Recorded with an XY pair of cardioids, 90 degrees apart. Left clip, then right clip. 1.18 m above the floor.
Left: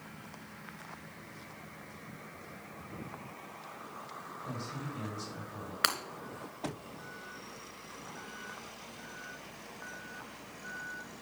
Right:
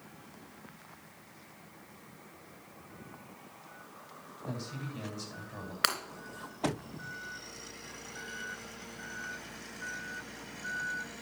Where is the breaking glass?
5° right, 3 m.